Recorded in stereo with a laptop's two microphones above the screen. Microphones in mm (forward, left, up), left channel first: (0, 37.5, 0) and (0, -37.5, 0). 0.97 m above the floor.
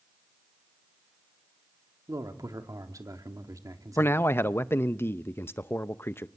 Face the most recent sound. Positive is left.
turn(degrees=30)  # may be behind; listen again after turning